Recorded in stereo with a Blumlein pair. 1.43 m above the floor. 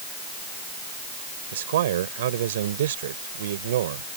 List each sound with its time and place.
1.5 s a man speaking: 60° right